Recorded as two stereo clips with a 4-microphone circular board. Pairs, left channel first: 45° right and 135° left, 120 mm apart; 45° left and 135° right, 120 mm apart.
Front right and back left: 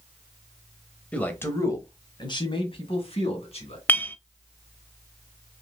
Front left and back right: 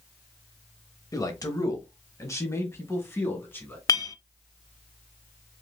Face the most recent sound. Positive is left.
turn(degrees=15)